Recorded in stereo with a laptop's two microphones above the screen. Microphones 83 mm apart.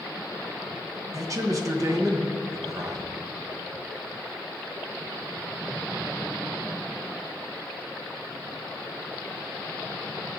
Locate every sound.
1.1 s a man speaking: 40° right (ahead or behind), 0.9 m